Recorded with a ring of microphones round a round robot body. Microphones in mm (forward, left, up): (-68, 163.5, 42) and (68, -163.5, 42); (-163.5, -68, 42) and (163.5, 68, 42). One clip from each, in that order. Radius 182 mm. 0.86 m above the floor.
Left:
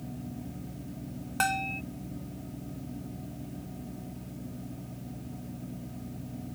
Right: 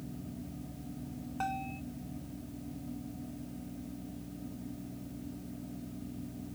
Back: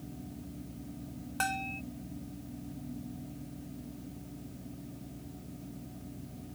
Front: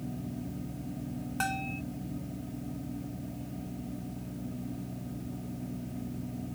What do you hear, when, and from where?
1.4 s a bell: 125° left